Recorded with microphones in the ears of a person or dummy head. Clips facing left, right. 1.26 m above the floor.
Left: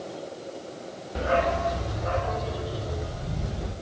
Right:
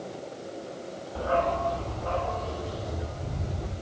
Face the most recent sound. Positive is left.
turn(degrees=15)  # may be behind; listen again after turning